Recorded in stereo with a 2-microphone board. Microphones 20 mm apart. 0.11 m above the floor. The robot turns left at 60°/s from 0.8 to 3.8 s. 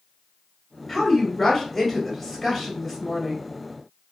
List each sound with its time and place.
0.9 s a woman speaking: 5° left (ahead or behind), 1.3 m